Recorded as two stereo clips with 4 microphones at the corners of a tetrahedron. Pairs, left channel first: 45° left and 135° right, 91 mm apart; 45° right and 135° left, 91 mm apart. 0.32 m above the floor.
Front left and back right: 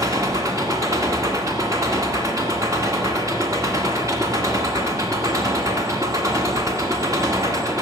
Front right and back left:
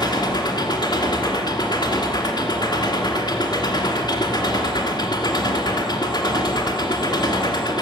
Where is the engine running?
80° right, 1.6 m.